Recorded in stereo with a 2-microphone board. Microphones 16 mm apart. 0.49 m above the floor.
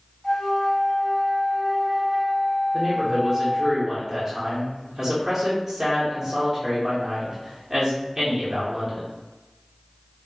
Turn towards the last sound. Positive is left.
turn(degrees=-25)  # may be behind; listen again after turning